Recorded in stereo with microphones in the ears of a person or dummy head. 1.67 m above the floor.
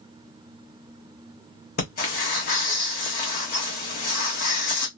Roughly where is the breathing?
Left.